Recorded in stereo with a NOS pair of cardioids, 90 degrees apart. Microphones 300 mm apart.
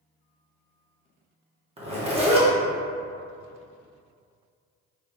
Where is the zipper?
20° right, 1.0 m.